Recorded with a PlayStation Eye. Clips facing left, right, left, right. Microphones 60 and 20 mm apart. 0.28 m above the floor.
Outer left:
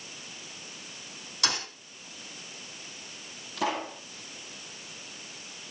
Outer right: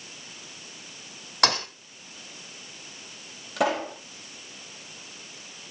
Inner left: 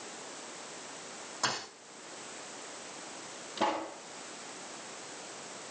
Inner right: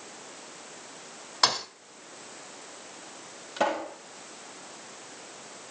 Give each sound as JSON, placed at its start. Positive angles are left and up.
{"t": 1.4, "sound": "a thud", "side_deg": -60, "distance_m": 1.6}
{"t": 3.6, "sound": "a pop", "side_deg": -90, "distance_m": 7.5}